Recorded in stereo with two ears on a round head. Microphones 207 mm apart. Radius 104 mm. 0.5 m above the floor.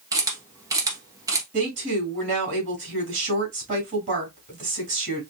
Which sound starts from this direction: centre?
A camera shutter, at 0.1 s.